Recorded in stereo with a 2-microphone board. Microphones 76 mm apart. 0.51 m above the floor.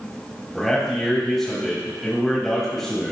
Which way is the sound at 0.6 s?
5° left (ahead or behind).